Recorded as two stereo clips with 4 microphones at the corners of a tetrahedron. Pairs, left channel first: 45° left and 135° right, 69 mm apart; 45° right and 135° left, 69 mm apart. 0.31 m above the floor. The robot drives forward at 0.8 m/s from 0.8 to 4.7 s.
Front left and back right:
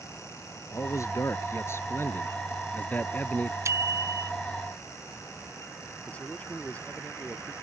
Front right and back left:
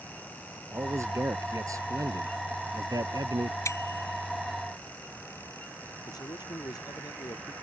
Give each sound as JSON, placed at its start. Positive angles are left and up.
{"t": 0.7, "sound": "a man speaking", "azimuth_deg": 85}
{"t": 3.6, "sound": "a bicycle bell", "azimuth_deg": -90}
{"t": 6.1, "sound": "a man speaking", "azimuth_deg": -25}